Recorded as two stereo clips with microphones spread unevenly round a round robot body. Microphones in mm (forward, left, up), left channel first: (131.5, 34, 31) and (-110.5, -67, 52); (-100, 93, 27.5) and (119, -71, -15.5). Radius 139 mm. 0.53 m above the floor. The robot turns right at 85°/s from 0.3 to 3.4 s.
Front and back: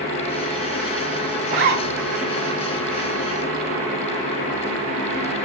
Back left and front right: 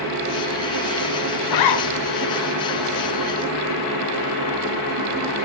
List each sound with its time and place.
1.4 s a zipper: 135° left, 6.5 m; by 1.8 s 165° left, 6.5 m